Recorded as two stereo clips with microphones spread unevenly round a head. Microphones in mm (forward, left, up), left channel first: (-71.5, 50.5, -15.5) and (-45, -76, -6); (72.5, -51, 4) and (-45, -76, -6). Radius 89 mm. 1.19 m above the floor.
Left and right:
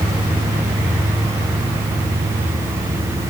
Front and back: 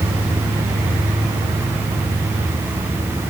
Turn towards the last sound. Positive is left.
No sound to turn to.